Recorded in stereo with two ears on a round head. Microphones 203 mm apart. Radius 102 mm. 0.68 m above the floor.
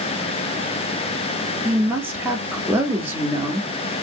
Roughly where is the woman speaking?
Centre.